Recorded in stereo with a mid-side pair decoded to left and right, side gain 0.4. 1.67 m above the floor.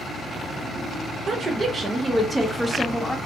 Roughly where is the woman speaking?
Ahead right.